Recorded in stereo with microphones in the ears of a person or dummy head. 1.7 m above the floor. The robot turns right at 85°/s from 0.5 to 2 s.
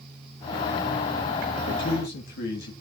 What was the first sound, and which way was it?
A man speaking, 80° left.